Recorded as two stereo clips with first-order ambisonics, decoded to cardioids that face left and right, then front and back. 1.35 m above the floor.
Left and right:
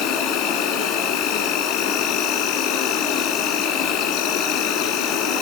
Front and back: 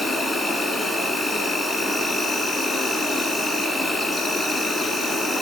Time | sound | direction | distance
0.0 | an insect | 75° left | 1.4 m